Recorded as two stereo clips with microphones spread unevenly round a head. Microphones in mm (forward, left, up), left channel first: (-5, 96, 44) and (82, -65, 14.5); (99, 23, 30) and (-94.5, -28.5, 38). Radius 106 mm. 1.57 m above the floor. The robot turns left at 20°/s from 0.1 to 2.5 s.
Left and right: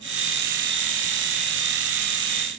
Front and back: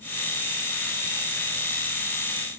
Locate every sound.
Only background noise.